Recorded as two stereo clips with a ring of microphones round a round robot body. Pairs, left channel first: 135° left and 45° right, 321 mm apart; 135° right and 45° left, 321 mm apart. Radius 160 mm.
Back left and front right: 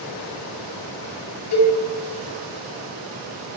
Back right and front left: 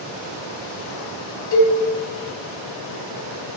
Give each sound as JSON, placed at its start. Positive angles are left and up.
{"t": 1.5, "sound": "a cowbell", "azimuth_deg": 175, "distance_m": 4.0}